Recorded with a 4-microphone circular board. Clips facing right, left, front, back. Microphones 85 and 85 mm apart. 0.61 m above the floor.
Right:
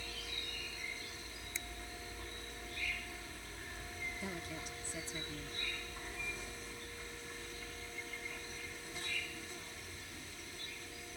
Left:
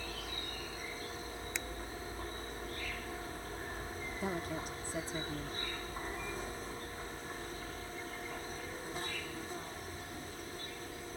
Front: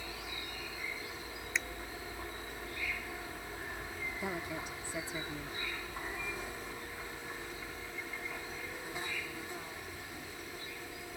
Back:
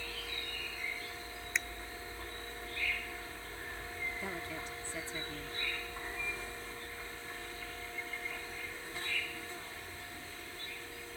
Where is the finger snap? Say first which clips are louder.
Left 5 dB, even; 90° left.